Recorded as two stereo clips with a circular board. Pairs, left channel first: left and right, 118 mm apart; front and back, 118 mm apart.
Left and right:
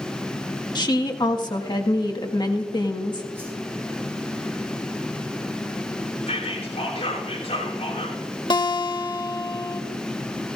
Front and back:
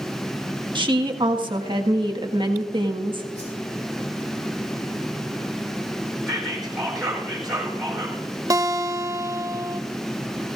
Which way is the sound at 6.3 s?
90° left.